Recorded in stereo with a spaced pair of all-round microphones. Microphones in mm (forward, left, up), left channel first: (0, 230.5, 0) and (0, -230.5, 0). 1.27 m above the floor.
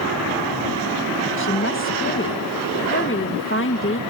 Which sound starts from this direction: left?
A woman speaking, at 1.4 s.